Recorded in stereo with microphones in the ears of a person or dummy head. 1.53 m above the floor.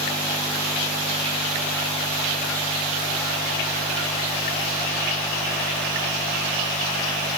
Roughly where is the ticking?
No ticking in this recording.